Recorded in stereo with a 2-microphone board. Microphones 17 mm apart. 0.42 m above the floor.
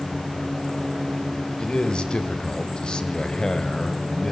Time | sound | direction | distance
1.6 | a man speaking | 55° left (ahead or behind) | 2.5 m